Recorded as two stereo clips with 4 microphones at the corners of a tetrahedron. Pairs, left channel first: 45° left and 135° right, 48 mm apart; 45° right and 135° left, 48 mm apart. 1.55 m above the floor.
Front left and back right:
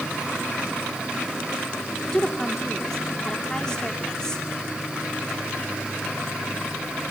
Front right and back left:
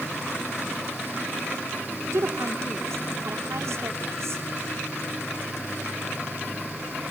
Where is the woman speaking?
120° left, 5.5 m.